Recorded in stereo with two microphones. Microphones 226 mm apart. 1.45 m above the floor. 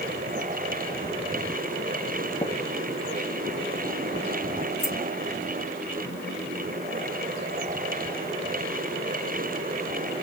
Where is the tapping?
30° left (ahead or behind), 0.9 m.